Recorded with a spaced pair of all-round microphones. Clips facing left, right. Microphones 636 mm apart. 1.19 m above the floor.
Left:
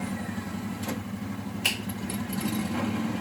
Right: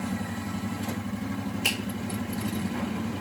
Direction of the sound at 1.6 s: 15° left (ahead or behind).